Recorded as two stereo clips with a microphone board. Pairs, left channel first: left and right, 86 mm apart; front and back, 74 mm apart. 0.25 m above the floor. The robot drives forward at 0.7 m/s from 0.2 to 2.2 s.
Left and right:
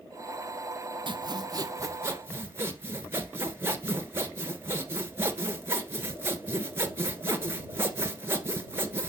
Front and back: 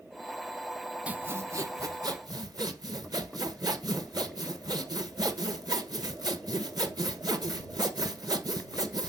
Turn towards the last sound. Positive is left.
turn(degrees=-155)